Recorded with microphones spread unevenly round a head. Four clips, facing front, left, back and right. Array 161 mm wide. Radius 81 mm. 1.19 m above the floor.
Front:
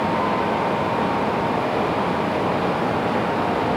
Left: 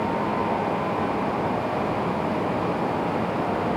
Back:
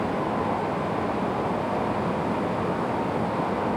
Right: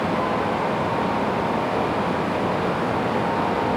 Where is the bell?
No bell in this recording.